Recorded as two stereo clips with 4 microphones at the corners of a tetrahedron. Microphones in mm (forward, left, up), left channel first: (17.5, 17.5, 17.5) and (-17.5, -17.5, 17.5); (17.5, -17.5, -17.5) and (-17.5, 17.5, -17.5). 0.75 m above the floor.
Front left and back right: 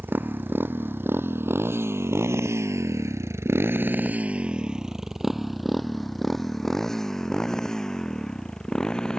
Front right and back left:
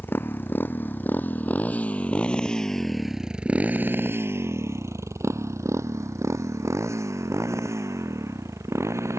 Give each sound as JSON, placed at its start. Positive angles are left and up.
{"t": 0.0, "sound": "a motorcycle", "azimuth_deg": -85}